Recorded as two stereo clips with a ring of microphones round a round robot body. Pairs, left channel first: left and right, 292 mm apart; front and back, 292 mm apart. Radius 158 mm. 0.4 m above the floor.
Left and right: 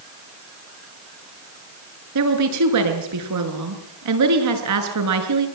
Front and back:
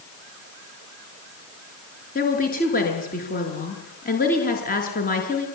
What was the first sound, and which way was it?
A woman speaking, 65° right.